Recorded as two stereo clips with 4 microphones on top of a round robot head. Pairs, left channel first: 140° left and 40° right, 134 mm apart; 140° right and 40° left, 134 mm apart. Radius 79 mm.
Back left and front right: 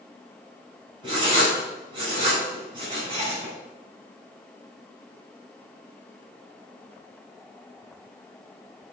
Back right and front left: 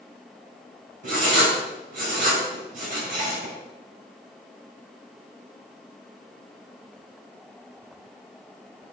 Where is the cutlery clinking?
No cutlery clinking in this recording.